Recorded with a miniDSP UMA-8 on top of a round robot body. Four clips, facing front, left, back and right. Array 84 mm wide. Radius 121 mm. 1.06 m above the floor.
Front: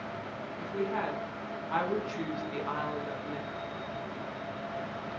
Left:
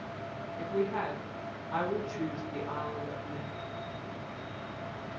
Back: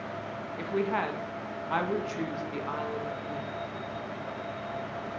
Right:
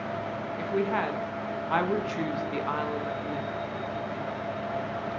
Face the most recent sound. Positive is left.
turn(degrees=-75)